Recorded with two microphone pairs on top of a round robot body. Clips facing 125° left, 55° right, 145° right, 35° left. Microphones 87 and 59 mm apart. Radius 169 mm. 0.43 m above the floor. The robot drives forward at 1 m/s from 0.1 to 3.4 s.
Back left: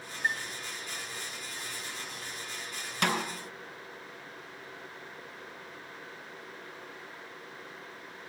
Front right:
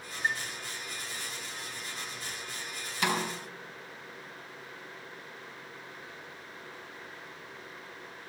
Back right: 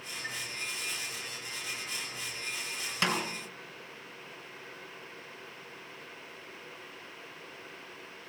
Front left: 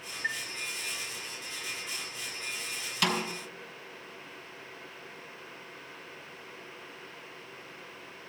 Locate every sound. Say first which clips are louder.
0.2 s a chime: even, front left 7 dB; 5° left, 1.5 m
3.0 s a snare drum: even, front left 1 dB; 155° left, 4 m; by 3.2 s 160° left, 4 m